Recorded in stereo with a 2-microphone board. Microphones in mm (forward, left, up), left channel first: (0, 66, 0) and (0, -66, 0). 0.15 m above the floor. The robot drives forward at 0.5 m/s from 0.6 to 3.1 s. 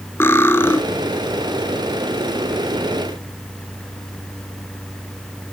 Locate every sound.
0.2 s cutlery clinking: 15° left (ahead or behind), 0.8 m